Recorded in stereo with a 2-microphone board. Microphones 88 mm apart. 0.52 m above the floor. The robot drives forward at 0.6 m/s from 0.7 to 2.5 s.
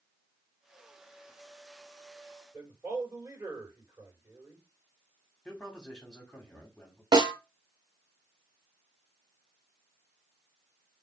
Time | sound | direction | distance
2.5 | a man speaking | 25° right (ahead or behind) | 2.5 m
5.5 | a man speaking | 5° left (ahead or behind) | 1.1 m
7.1 | a snare drum | 60° right (ahead or behind) | 0.6 m